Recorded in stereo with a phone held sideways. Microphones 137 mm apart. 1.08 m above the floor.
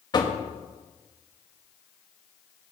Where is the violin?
I don't hear a violin.